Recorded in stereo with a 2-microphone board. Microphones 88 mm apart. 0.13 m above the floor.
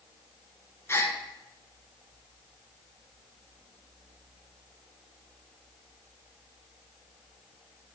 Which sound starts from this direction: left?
A gasp, at 0.9 s.